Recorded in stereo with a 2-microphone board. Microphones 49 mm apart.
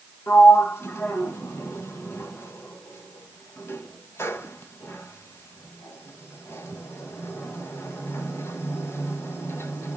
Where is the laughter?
No laughter in this recording.